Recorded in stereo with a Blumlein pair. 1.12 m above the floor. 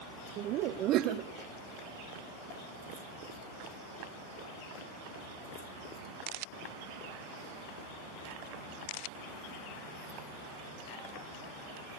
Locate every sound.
0.4 s laughter: 35° right, 1.3 m